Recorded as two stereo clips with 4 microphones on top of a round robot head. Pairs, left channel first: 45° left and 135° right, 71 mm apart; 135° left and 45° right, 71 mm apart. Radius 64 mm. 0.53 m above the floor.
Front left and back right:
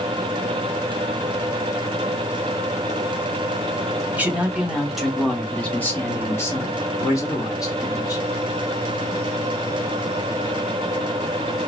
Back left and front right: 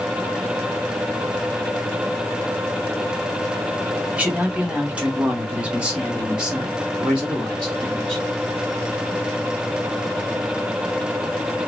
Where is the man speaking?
95° right, 1.4 m; by 8.2 s 40° left, 2 m.